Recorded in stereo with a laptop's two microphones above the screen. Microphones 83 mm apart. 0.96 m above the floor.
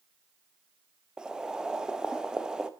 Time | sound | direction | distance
1.2 | boiling | 10° right (ahead or behind) | 0.6 m